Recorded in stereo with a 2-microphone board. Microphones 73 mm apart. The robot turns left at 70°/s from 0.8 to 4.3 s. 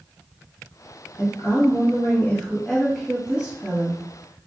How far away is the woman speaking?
About 1.1 m.